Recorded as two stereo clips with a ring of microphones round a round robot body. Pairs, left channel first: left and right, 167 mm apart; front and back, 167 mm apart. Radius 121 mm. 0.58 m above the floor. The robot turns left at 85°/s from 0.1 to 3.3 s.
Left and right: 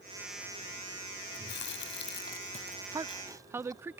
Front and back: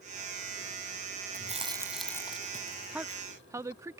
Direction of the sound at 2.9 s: 110° right.